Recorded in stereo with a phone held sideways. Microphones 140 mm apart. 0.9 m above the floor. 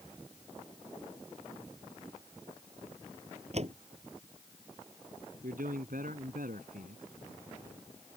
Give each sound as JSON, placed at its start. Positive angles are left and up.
{"t": 3.5, "sound": "a door slam", "side_deg": -50}
{"t": 5.4, "sound": "a man speaking", "side_deg": -85}